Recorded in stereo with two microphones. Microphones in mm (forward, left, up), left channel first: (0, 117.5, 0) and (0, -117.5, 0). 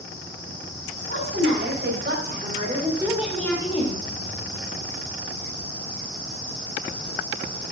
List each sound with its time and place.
1.1 s a woman speaking: 65° right (ahead or behind), 3.5 m; by 4.0 s 35° left (ahead or behind), 1.8 m